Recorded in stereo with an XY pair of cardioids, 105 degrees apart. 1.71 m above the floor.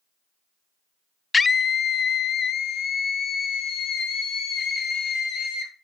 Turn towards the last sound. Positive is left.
turn(degrees=70)